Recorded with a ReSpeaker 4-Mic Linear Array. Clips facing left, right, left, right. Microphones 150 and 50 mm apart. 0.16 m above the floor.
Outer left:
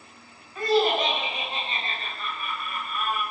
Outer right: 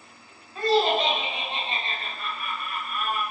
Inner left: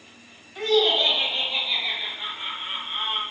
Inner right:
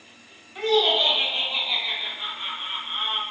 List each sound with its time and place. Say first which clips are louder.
0.6 s laughter: even, even; 30° right (ahead or behind), 1.2 m; by 3.2 s 10° right (ahead or behind), 1.8 m